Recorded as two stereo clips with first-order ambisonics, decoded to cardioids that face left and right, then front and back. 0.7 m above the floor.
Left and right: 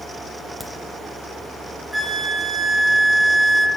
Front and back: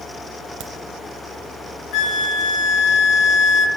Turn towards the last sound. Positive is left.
turn(degrees=-5)